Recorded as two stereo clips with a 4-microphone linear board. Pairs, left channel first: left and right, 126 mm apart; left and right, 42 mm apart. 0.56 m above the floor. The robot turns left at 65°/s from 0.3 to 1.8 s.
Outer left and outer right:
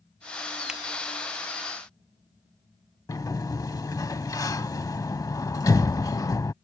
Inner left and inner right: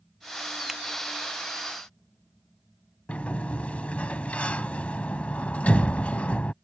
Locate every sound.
0.7 s a finger snap: 5° right (ahead or behind)
3.1 s a sliding door: 30° left (ahead or behind)